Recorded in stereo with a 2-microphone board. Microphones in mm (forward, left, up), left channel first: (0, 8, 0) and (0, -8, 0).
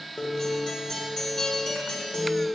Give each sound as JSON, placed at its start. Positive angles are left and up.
{"t": 0.2, "sound": "a guitar", "side_deg": 55, "distance_m": 1.6}